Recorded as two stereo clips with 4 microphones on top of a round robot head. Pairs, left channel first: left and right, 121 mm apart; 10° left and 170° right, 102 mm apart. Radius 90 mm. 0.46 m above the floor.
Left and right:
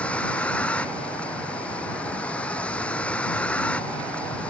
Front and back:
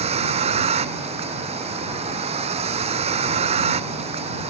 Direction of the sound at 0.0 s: 170° left.